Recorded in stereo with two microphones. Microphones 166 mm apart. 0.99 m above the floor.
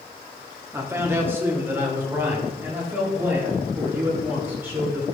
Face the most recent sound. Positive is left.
turn(degrees=-10)  # may be behind; listen again after turning